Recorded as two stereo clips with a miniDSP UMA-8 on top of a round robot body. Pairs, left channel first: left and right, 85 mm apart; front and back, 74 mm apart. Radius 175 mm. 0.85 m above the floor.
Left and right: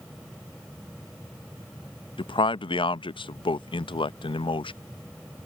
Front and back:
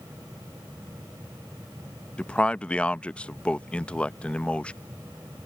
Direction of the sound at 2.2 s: 75° left.